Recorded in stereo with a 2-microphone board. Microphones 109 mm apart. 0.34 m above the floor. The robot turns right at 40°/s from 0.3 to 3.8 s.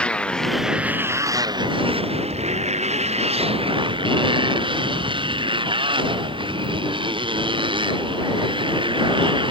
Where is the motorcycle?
170° left; by 9.5 s 50° right.